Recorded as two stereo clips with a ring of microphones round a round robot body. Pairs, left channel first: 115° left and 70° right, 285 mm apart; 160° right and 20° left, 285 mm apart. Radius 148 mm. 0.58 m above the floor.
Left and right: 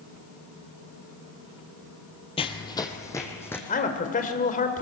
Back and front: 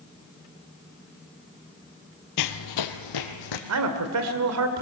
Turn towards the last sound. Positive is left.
turn(degrees=50)